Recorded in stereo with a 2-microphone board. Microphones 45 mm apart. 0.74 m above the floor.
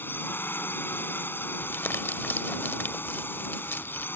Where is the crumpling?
55° left (ahead or behind).